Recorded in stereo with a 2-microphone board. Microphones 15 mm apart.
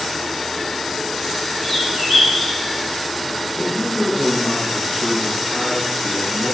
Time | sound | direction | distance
1.6 | a bird | 30° left (ahead or behind) | 2.5 m
3.6 | a man speaking | 5° right (ahead or behind) | 5 m